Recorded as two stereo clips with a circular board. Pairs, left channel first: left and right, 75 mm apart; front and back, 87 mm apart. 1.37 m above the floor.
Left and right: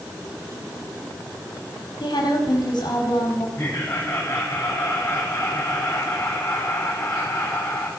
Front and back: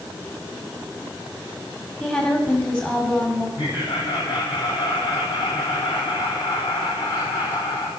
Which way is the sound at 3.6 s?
30° left.